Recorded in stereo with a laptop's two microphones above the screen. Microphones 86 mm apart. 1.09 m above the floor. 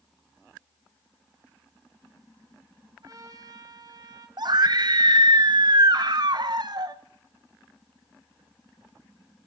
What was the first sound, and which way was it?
A trumpet, 50° right (ahead or behind).